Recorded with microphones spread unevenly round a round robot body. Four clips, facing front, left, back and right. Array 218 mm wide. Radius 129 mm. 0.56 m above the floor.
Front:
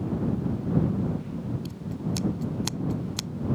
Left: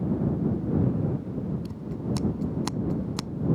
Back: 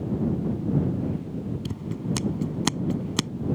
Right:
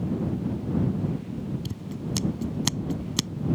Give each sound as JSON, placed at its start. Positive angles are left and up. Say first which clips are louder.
{"t": 1.6, "sound": "scissors", "louder": "left 2 dB, back 2 dB", "azimuth_deg": -175}